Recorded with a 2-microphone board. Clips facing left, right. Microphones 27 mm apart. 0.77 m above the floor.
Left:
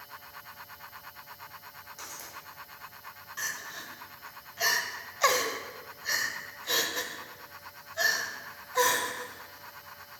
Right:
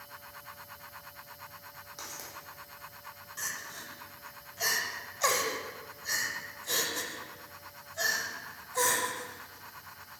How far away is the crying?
About 0.6 m.